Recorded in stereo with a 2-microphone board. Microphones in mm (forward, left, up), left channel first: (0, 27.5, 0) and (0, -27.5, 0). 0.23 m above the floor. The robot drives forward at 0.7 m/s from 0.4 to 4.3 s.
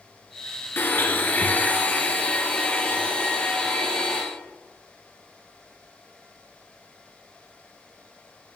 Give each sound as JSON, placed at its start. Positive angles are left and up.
{"t": 0.8, "sound": "a blender", "side_deg": 45, "distance_m": 1.5}